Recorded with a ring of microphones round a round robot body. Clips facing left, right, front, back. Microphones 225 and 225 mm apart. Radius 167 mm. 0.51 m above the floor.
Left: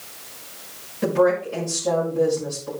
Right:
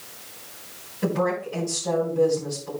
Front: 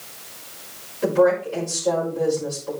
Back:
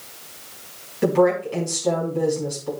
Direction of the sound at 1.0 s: 170° left.